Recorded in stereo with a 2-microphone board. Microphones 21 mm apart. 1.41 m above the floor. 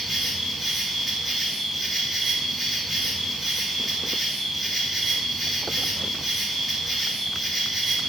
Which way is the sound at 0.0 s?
5° right (ahead or behind).